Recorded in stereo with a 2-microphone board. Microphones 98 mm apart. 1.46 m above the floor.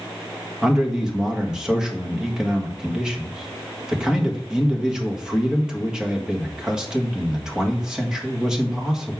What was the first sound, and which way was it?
A man speaking, 10° right (ahead or behind).